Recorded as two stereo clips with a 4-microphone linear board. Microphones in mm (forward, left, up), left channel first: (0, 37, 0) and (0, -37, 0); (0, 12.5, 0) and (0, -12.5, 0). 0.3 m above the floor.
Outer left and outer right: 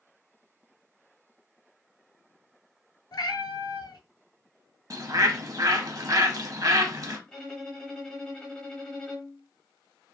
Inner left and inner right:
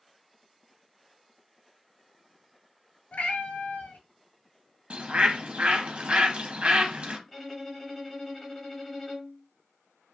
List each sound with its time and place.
3.1 s a cat meowing: 75° left (ahead or behind), 0.6 m
4.9 s a bird: 50° right (ahead or behind), 0.5 m
7.3 s a violin: 10° left (ahead or behind), 0.9 m